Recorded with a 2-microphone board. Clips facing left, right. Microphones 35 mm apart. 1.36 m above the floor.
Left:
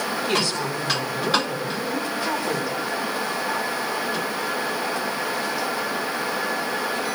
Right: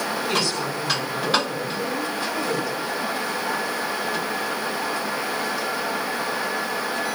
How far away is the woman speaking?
About 8.5 m.